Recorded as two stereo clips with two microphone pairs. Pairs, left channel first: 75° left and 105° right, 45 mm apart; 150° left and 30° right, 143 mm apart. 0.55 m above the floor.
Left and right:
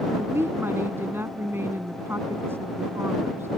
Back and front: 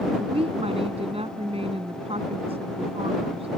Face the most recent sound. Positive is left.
turn(degrees=-80)